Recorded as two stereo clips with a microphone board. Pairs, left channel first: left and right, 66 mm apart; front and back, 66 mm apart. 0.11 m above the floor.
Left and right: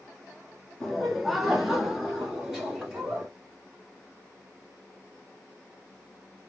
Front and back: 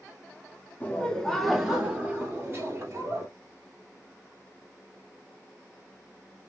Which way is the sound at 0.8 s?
5° left.